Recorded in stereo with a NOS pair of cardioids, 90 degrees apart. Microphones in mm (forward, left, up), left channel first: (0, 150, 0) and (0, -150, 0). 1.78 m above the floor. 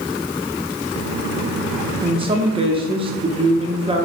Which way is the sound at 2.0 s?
20° right.